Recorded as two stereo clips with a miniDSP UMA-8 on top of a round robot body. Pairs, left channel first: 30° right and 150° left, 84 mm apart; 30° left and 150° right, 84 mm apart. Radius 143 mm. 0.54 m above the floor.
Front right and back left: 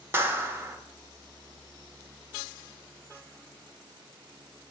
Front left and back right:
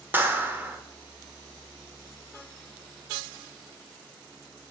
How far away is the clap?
About 0.9 m.